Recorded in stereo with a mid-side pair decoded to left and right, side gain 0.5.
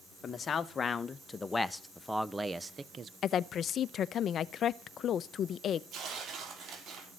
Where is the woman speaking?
55° left, 0.7 m.